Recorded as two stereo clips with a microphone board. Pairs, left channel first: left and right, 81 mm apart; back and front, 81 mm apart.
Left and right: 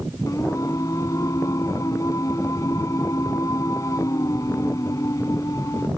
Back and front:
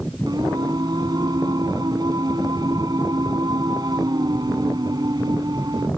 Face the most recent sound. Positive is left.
turn(degrees=40)